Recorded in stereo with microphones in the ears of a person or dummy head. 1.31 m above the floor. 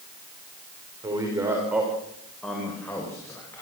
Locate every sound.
1.0 s a man speaking: 20° right (ahead or behind), 4 m; by 3.6 s 20° left (ahead or behind), 6 m